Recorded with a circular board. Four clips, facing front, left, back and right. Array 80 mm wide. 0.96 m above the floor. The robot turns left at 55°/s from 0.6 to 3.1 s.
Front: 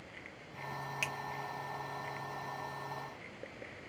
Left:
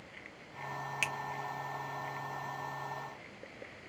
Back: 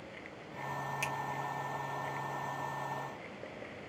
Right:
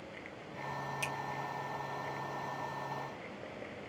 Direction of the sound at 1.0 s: 75° left.